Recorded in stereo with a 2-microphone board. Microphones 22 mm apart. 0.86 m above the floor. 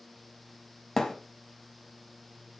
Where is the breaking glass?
I don't hear breaking glass.